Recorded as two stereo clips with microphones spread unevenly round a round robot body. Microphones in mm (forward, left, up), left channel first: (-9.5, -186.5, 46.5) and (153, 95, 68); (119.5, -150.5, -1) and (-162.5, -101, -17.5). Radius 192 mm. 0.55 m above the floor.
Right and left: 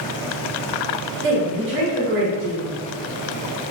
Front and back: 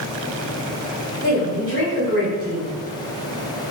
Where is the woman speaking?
130° left, 1.5 m.